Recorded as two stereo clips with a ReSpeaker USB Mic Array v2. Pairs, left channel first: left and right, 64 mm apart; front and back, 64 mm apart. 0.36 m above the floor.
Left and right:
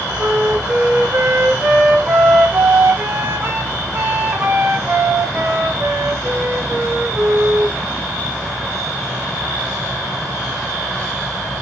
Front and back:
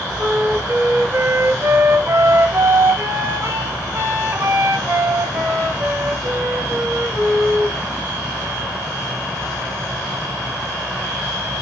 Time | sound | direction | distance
0.2 | a flute | 140° right | 1.2 m